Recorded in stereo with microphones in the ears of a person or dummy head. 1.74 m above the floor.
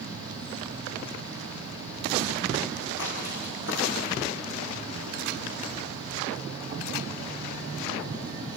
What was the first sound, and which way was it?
An insect, 20° right (ahead or behind).